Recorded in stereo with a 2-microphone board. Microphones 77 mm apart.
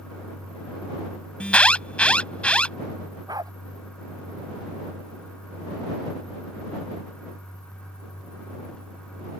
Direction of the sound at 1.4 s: 15° left (ahead or behind).